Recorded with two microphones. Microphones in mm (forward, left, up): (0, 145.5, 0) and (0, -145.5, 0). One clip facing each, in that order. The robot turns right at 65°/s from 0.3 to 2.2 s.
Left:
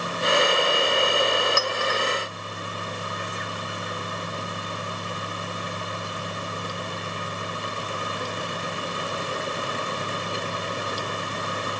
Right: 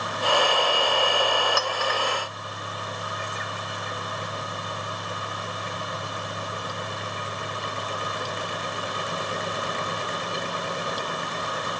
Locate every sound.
1.6 s a clink: 30° left (ahead or behind), 1.1 m; by 2.0 s 50° left (ahead or behind), 1.1 m